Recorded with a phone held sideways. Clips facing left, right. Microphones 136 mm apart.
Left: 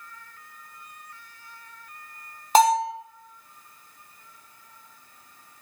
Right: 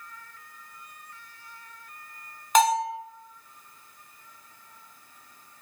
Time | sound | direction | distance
2.5 | a bell | 35° left (ahead or behind) | 0.6 m